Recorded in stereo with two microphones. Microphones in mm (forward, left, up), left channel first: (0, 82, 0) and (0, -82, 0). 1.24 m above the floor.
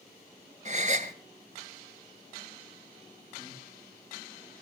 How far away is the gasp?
About 1.9 m.